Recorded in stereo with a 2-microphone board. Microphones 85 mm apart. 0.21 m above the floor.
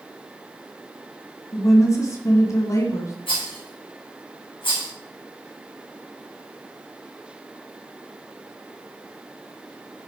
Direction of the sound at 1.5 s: 40° left (ahead or behind).